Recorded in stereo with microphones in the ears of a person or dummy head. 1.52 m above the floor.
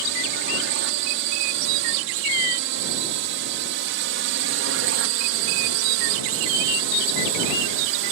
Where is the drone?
65° right (ahead or behind); by 8.1 s 60° right (ahead or behind).